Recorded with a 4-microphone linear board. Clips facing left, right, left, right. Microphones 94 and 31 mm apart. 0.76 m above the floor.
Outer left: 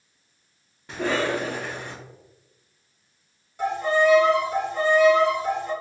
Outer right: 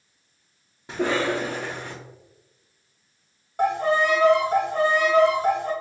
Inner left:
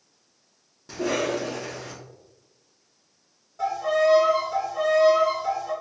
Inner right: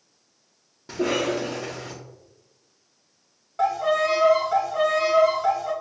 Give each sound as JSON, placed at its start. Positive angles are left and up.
{"t": 0.9, "sound": "a cough", "side_deg": -20, "distance_m": 1.1}
{"t": 3.6, "sound": "a violin", "side_deg": -60, "distance_m": 1.0}